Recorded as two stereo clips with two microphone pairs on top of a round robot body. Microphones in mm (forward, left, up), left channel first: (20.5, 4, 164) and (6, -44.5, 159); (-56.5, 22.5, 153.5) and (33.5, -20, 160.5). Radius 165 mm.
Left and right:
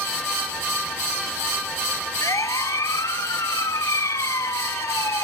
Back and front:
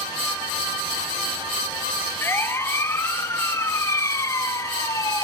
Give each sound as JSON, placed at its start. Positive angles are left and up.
{"t": 2.2, "sound": "a siren", "azimuth_deg": 85}